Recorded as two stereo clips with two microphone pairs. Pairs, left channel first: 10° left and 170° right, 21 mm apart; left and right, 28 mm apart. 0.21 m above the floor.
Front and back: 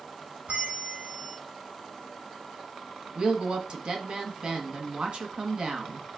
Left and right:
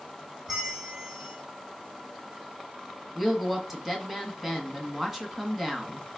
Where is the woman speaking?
170° right, 1.7 m.